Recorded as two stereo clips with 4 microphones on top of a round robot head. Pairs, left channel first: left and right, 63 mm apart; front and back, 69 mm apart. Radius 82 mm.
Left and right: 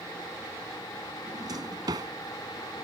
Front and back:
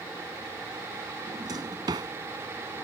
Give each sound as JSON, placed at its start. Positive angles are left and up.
{"t": 1.3, "sound": "a drawer", "azimuth_deg": -130}